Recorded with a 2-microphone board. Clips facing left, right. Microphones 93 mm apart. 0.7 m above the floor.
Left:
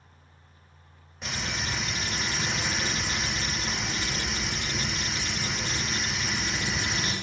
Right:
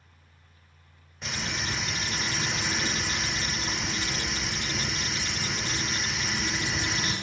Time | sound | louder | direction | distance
1.2 | frying | even | centre (ahead or behind) | 1.8 m